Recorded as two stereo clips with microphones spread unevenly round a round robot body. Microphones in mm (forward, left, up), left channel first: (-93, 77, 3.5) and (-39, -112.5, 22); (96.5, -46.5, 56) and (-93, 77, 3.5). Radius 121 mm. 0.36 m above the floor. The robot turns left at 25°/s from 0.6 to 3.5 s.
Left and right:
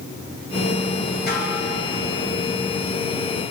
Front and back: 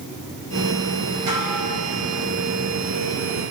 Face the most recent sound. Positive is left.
turn(degrees=90)